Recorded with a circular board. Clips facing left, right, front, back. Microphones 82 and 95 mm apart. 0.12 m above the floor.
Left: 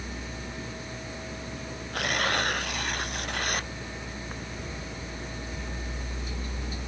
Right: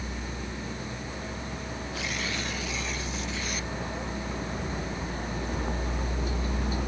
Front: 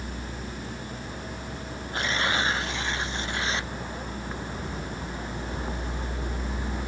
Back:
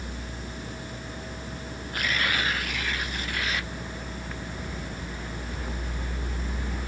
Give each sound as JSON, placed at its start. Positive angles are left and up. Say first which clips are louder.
{"t": 0.0, "sound": "a vehicle", "louder": "right 2 dB, front 2 dB", "azimuth_deg": -50}
{"t": 1.9, "sound": "tearing paper", "louder": "left 8 dB, front 2 dB", "azimuth_deg": 65}